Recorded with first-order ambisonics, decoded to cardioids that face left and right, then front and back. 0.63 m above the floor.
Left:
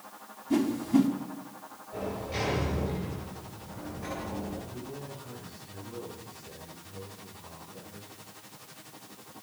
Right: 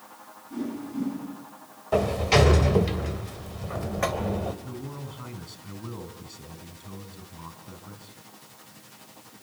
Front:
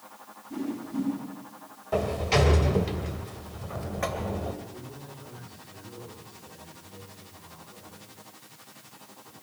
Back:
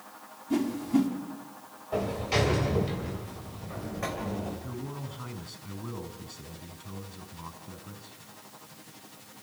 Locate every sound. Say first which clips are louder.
0.5 s a whoosh: left 8 dB, back 6 dB; 125° left, 5 m
1.9 s a sliding door: right 13 dB, front 3 dB; 75° right, 2.5 m
4.6 s a man speaking: right 2 dB, back 3 dB; 135° right, 5.5 m